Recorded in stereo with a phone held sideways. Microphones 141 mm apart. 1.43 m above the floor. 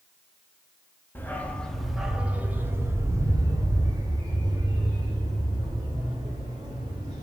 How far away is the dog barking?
About 1.0 m.